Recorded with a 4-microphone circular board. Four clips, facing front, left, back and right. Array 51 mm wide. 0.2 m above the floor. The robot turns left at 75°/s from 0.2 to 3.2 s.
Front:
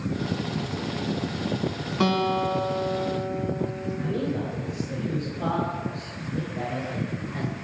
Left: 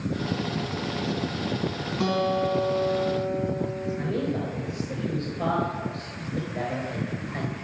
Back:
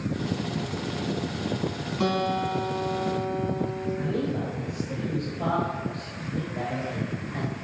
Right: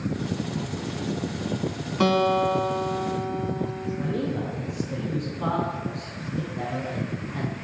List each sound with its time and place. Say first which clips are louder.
2.0 s a guitar: right 4 dB, front 2 dB; 50° right, 1.2 m; by 3.9 s 140° right, 1.2 m
4.0 s a man speaking: right 1 dB, front 2 dB; 100° left, 4 m